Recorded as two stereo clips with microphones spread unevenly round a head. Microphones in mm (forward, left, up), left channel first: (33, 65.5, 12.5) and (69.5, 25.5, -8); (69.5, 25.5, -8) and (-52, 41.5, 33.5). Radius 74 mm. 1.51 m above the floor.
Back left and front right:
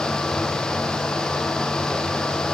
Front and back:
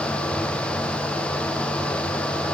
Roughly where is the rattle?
No rattle in this recording.